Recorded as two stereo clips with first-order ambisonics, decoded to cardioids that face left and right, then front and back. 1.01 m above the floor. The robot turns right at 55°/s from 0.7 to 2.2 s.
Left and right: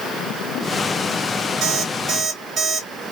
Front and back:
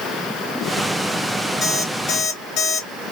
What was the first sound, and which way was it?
An alarm clock, 55° right.